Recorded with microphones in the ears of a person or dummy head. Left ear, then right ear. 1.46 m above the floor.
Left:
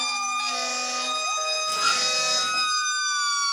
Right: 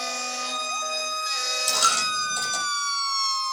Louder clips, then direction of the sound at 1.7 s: Right 2 dB; 75° right (ahead or behind).